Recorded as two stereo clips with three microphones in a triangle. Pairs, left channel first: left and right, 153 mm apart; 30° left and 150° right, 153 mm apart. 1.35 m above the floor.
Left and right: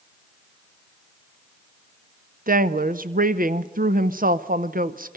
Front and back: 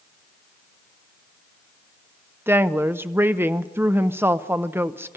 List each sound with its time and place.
2.5 s a woman speaking: 75° right, 0.7 m